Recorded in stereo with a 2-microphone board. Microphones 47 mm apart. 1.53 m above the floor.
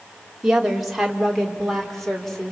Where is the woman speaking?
5° right (ahead or behind), 3.5 m; by 2.5 s 10° left (ahead or behind), 4.5 m.